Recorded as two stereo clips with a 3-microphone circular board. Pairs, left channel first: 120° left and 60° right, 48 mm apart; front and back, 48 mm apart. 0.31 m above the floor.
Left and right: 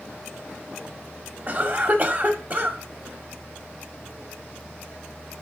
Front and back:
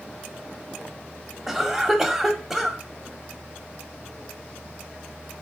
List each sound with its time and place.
1.5 s a cough: 95° right, 1.6 m